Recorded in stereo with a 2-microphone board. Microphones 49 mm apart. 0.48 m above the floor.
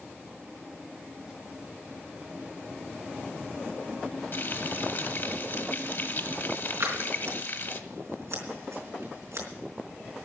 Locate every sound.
4.3 s frying: 50° left (ahead or behind), 1.3 m
6.8 s scissors: 75° right (ahead or behind), 4 m